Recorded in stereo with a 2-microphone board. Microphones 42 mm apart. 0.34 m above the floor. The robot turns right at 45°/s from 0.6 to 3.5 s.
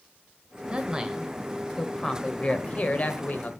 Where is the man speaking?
40° right, 1.1 m; by 3.5 s 90° left, 1.1 m.